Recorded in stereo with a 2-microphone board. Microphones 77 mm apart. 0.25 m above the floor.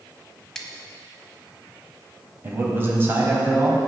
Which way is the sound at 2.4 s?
30° right (ahead or behind).